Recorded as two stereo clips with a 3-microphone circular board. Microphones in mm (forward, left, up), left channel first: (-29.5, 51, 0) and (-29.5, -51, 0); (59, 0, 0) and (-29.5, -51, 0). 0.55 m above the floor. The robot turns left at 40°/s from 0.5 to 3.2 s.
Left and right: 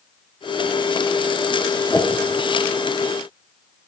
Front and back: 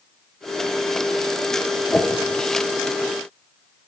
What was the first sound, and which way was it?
A whoosh, 85° left.